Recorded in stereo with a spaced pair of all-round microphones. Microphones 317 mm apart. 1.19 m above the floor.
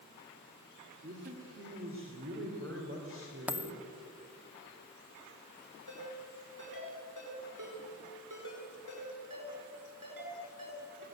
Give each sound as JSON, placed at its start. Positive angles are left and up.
{"t": 1.0, "sound": "a man speaking", "side_deg": -35, "distance_m": 2.5}
{"t": 3.5, "sound": "a dropped coin", "side_deg": -5, "distance_m": 0.7}
{"t": 5.9, "sound": "a ringtone", "side_deg": -85, "distance_m": 9.5}